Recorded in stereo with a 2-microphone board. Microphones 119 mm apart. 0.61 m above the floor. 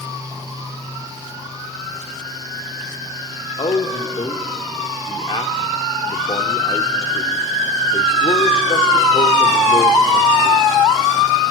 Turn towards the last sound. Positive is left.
turn(degrees=45)  # may be behind; listen again after turning